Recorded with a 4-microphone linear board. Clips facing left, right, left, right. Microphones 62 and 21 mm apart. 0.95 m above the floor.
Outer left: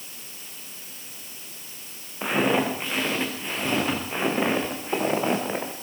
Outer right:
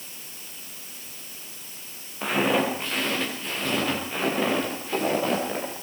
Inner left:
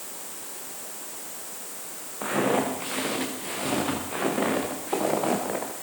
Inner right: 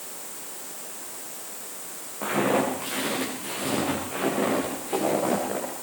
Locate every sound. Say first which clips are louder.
2.2 s footsteps: even, inner right 1 dB; 10° left (ahead or behind), 7 m; by 5.7 s 25° left (ahead or behind), 7 m